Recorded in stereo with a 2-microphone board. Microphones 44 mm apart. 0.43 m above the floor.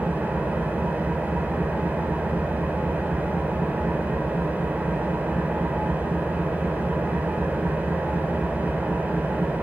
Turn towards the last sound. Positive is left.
turn(degrees=-35)  # may be behind; listen again after turning